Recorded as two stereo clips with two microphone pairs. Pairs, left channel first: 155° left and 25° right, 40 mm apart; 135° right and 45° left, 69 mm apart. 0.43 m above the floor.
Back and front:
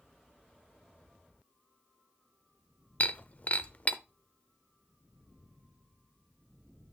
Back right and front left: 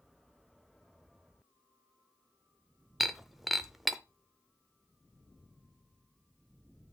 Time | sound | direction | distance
3.0 | breaking glass | 130° left | 0.6 m